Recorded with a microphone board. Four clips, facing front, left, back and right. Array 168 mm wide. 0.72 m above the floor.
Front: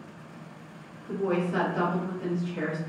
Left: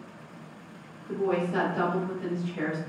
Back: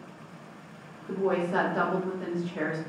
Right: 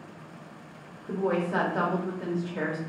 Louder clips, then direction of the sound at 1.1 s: Even, back 1 dB; 120° right.